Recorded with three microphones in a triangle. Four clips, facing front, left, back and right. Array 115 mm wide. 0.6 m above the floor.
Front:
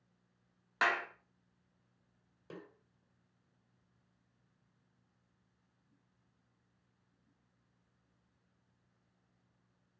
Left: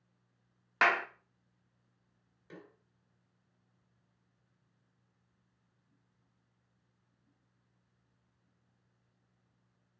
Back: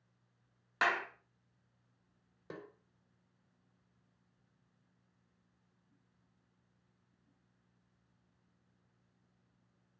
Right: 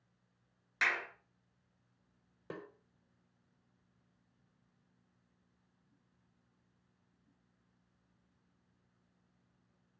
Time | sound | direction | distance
0.8 | a clap | 90° left | 1.1 m
2.5 | a snare drum | 110° right | 1.8 m